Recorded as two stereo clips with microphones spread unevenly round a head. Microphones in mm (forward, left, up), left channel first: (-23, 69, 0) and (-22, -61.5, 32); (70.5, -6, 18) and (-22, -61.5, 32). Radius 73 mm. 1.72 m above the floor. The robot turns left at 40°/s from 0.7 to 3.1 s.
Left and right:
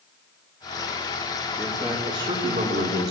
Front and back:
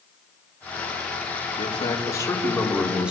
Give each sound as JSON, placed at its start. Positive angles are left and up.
{"t": 1.6, "sound": "a man speaking", "azimuth_deg": -10, "distance_m": 4.5}